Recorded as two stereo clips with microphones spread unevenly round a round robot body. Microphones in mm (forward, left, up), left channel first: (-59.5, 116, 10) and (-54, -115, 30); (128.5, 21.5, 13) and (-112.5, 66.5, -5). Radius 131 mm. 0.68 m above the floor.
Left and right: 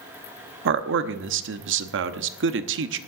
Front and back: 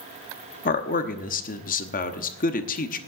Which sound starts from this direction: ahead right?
A man speaking, at 0.7 s.